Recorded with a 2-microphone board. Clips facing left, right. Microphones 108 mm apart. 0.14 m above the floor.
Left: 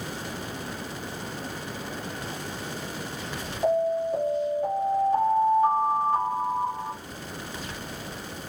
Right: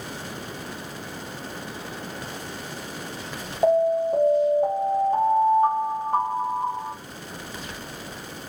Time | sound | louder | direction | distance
3.6 | an alarm | right 4 dB | 40° right (ahead or behind) | 3 m